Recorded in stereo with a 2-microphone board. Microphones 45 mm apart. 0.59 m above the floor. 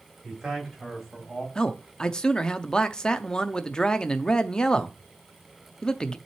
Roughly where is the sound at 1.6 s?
Centre.